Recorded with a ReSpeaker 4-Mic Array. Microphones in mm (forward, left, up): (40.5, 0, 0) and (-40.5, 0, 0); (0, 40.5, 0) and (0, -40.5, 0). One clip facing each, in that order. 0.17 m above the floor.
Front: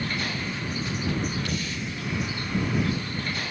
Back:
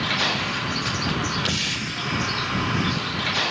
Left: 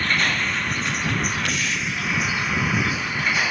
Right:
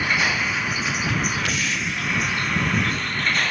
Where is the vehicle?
170° right; by 3.5 s 175° left.